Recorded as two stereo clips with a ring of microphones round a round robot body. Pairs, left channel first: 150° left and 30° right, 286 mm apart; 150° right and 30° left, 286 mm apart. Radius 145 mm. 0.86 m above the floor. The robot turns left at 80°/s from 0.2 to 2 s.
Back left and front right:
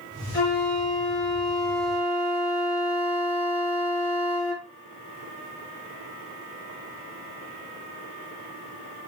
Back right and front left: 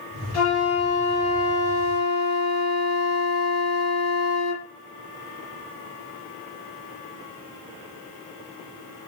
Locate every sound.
0.3 s a flute: 150° left, 3.5 m; by 4.7 s 15° left, 3.5 m